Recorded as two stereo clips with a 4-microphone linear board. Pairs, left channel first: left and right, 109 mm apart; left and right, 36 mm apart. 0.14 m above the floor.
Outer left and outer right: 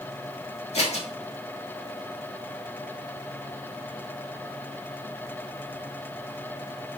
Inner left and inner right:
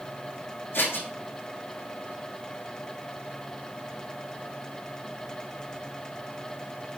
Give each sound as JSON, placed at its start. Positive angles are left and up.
{"t": 0.7, "sound": "scissors", "side_deg": 80, "distance_m": 5.0}